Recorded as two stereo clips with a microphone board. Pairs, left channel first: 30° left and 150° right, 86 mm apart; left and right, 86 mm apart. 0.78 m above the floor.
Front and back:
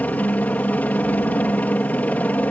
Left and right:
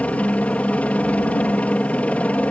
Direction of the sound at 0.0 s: 55° left.